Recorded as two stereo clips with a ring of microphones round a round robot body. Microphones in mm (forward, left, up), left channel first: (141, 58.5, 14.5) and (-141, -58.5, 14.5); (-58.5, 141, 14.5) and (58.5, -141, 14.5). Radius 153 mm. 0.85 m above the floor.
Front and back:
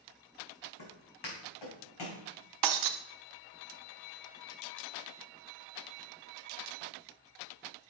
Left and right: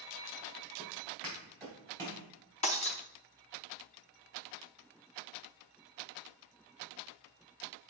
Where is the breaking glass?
Straight behind, 0.5 m.